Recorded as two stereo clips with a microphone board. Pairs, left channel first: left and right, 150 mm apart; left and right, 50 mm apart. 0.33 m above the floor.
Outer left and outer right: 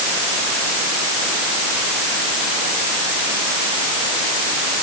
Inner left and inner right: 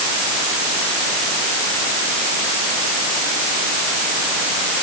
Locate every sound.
Only background noise.